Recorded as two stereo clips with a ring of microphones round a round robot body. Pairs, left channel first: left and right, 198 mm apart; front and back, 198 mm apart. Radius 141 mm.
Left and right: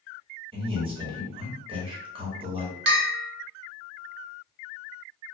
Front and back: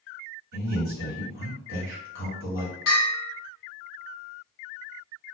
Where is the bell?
55° right, 0.5 m.